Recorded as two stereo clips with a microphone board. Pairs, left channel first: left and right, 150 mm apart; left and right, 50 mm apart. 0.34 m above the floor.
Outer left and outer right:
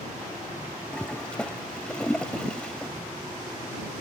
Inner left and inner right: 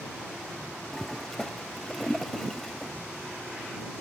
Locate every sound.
0.9 s a toilet flushing: 5° left (ahead or behind)